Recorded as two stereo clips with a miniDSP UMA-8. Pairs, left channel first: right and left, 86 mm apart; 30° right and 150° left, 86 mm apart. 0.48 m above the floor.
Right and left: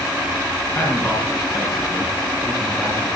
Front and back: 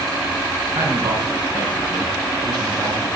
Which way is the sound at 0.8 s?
160° right.